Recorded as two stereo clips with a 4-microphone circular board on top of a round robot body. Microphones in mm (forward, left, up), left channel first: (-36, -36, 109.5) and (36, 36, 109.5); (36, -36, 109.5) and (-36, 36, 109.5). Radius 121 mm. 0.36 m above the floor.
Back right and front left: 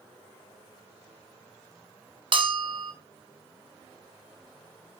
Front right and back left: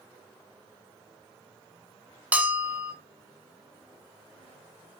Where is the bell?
60° left, 2.5 m.